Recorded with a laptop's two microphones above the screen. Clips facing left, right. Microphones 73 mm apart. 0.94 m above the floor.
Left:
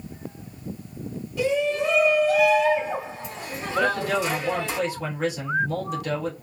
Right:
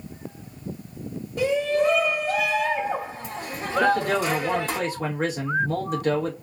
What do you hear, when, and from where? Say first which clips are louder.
1.4 s a shout: right 1 dB; 45° right (ahead or behind), 1.7 m
3.8 s a man speaking: right 3 dB; 45° right (ahead or behind), 1.2 m